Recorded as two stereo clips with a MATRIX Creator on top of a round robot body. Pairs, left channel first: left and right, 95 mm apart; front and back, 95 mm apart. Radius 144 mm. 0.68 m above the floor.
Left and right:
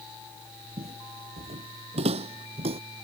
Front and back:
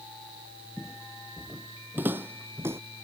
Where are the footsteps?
90° right; by 2.8 s 110° right.